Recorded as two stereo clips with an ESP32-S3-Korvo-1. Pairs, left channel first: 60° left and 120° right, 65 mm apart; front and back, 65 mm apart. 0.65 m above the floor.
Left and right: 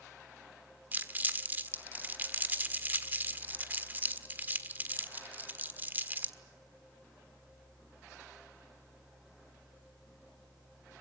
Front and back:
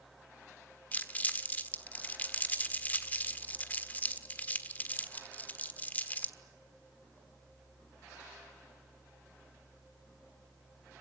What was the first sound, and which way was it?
Crumpling, 60° right.